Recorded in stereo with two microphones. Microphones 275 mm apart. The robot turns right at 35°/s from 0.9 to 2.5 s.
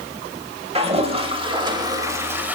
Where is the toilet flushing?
20° right (ahead or behind), 0.7 m; by 2.6 s 5° right (ahead or behind), 0.7 m.